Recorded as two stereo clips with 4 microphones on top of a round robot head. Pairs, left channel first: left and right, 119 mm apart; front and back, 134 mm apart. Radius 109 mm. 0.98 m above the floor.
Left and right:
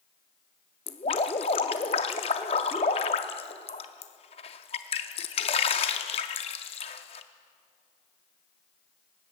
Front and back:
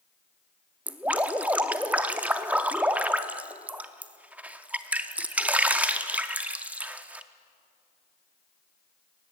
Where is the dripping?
110° left, 0.5 m.